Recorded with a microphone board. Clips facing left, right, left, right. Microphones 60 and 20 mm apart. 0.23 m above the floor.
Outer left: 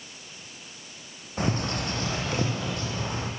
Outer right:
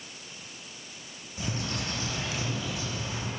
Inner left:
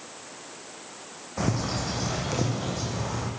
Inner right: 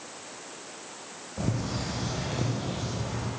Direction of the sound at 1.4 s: 55° left (ahead or behind).